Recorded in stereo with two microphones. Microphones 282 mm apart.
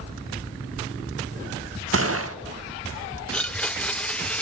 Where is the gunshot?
55° right (ahead or behind), 1.0 m.